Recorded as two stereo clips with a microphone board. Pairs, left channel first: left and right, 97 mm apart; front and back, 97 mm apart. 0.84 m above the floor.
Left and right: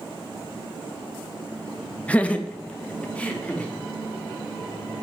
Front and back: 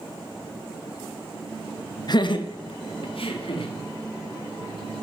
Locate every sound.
2.1 s laughter: 15° left, 0.8 m; by 3.7 s 10° left, 2 m